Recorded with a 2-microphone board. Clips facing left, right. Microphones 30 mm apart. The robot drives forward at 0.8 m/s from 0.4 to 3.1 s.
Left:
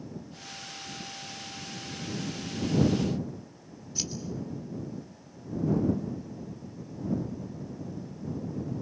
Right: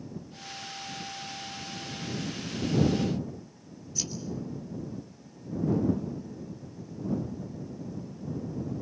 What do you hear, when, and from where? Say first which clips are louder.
4.0 s scissors: even; 20° left (ahead or behind), 3 m